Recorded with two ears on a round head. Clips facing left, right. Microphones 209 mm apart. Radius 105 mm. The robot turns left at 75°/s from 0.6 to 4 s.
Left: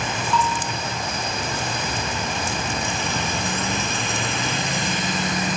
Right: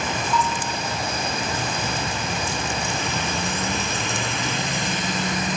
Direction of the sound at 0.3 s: 15° right (ahead or behind).